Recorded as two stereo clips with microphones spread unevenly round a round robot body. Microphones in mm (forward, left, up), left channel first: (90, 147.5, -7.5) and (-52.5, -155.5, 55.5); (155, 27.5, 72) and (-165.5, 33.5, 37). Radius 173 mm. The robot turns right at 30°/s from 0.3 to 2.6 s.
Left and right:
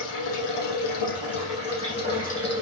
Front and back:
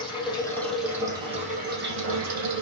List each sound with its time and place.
0.0 s running water: 75° left, 5.5 m; by 2.6 s 145° left, 5.5 m